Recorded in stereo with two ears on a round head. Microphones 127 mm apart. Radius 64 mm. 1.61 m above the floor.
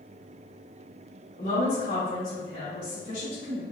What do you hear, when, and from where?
1.4 s a woman speaking: 55° left (ahead or behind), 2.0 m; by 3.6 s 65° left (ahead or behind), 3.5 m